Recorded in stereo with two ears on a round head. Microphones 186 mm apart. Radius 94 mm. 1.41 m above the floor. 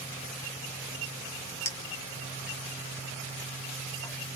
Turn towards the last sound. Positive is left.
turn(degrees=15)  # may be behind; listen again after turning